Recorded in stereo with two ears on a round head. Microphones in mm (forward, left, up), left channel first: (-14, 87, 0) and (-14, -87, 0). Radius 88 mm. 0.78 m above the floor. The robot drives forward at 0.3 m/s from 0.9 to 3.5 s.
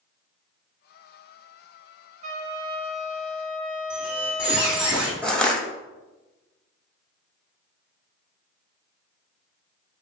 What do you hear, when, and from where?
2.2 s a trumpet: 35° right (ahead or behind), 1.2 m
3.9 s a squeak: 5° right (ahead or behind), 2.5 m
5.2 s crushing: 5° left (ahead or behind), 0.7 m